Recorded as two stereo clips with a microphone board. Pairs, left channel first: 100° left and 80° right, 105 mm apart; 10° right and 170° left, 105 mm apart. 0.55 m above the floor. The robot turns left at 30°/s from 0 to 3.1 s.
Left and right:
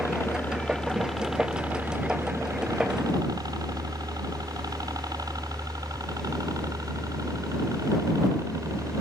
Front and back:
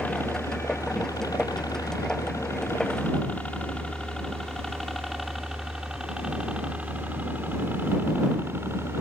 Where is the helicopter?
55° left; by 9.0 s 130° right.